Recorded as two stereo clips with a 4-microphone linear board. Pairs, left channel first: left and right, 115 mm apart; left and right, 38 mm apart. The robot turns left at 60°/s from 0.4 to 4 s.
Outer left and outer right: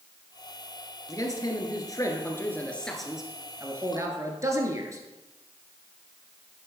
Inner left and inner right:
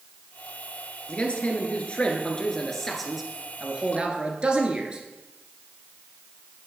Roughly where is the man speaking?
Behind left.